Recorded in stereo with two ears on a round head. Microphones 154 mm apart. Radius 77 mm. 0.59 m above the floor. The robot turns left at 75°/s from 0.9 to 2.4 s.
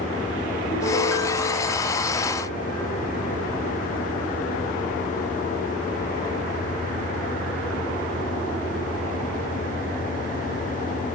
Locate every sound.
0.7 s a piano: 160° left, 9.5 m; by 2.8 s 50° left, 9.5 m